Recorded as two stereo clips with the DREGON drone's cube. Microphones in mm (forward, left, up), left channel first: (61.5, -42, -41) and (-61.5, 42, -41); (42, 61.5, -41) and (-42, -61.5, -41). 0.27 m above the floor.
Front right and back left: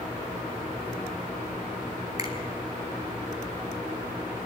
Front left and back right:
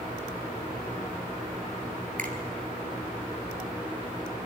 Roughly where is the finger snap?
Behind right.